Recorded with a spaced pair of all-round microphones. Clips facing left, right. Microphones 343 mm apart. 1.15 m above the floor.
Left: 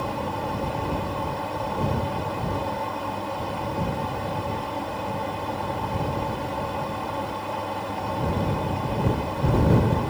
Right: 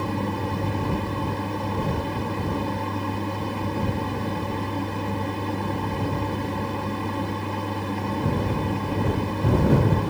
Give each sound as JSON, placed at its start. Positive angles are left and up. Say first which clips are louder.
{"t": 0.0, "sound": "a fan", "louder": "right 3 dB", "side_deg": -30}